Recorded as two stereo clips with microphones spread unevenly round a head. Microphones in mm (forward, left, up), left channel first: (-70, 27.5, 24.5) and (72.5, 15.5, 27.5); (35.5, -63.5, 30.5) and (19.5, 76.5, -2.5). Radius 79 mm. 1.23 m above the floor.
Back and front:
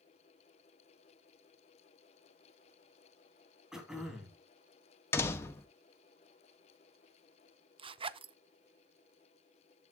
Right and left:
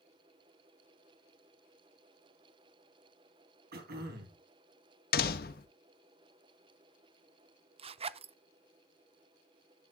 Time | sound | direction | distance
3.7 | throat clearing | 80° left | 4 m
5.1 | a door slam | 110° right | 1.0 m
7.8 | a zipper | 50° left | 0.6 m